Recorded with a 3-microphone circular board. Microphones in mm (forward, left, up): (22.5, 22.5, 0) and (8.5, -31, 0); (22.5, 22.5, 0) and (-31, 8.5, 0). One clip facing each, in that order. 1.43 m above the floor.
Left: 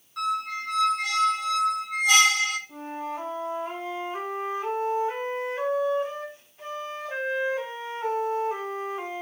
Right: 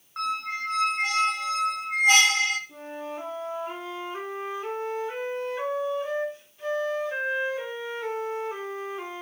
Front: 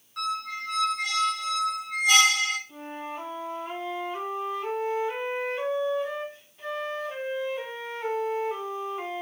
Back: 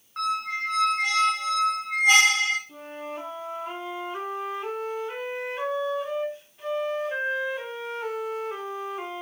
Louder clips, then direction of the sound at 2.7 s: Left 3 dB, even; 115° left.